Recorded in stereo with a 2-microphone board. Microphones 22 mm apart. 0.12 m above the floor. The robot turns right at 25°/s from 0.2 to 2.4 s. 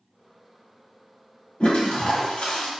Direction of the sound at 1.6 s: 65° left (ahead or behind).